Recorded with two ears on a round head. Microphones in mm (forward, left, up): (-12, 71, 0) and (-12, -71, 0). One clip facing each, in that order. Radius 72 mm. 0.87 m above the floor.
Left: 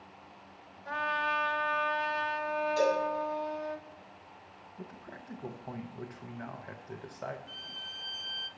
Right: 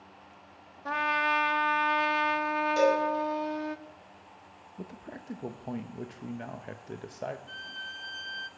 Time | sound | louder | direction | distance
0.8 | a trumpet | right 4 dB | 65° right (ahead or behind) | 0.8 m
2.8 | a cowbell | right 4 dB | 70° right (ahead or behind) | 5 m
4.8 | a man speaking | right 4 dB | 25° right (ahead or behind) | 0.6 m
7.5 | a violin | right 3 dB | centre (ahead or behind) | 0.6 m